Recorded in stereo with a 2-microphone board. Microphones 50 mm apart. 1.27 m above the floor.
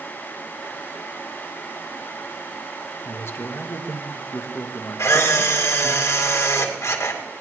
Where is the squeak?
No squeak in this recording.